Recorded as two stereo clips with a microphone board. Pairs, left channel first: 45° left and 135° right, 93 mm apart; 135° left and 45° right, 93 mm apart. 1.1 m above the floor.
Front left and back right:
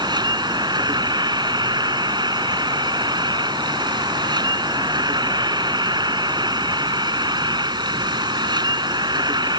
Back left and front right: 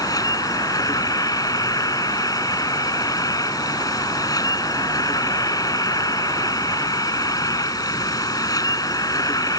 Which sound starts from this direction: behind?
An insect, at 0.0 s.